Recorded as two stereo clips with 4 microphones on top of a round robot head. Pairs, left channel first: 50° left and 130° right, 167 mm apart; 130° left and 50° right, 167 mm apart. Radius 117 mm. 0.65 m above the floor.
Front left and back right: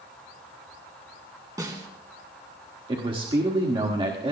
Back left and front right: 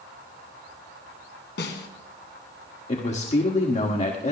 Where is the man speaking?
175° left, 1.7 m.